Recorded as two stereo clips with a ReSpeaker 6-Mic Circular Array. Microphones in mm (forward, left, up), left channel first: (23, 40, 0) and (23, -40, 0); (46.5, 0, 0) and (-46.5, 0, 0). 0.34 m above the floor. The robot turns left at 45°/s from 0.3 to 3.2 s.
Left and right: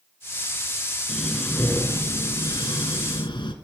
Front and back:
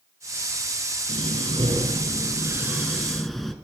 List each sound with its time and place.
1.1 s breathing: straight behind, 1.1 m; by 3.5 s 85° left, 1.1 m